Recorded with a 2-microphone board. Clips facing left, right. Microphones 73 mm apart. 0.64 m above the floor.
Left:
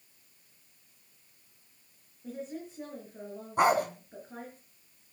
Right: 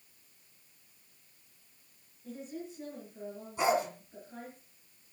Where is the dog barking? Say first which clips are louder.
Left 4 dB; 55° left (ahead or behind), 2.5 m.